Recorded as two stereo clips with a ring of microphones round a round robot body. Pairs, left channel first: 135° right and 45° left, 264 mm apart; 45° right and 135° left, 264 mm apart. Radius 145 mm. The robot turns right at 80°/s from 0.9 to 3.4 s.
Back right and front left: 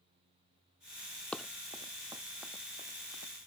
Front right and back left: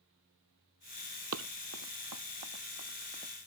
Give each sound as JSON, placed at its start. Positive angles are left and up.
{"t": 1.3, "sound": "running footsteps", "azimuth_deg": 140}